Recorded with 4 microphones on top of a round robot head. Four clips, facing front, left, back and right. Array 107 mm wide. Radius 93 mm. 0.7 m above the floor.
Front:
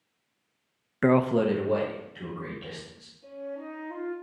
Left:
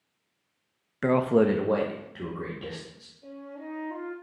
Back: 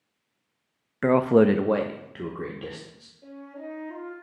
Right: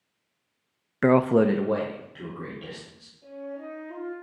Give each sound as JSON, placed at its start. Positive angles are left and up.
{"t": 1.0, "sound": "a man speaking", "azimuth_deg": -75, "distance_m": 0.5}
{"t": 3.2, "sound": "a flute", "azimuth_deg": -170, "distance_m": 3.5}